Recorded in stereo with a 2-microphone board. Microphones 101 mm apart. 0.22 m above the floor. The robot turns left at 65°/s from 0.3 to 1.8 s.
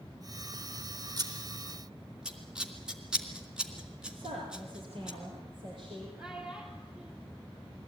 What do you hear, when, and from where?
1.2 s scissors: 40° right (ahead or behind), 2.5 m; by 5.1 s 10° right (ahead or behind), 2.5 m
4.1 s a woman speaking: 60° right (ahead or behind), 6.5 m
6.2 s a child speaking: 5° right (ahead or behind), 3 m